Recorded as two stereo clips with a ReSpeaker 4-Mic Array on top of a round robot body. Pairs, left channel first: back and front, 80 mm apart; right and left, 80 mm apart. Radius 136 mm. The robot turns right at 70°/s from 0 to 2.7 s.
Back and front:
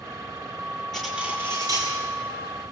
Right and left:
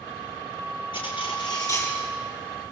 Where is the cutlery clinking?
95° right, 7 m; by 2.0 s 20° right, 7 m.